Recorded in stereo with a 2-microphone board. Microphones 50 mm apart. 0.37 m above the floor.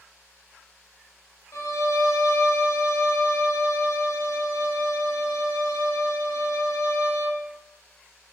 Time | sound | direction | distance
1.5 | a violin | 90° left | 1.4 m